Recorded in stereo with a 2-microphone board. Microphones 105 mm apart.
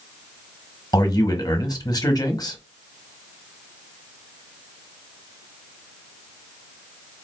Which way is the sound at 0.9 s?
45° left (ahead or behind).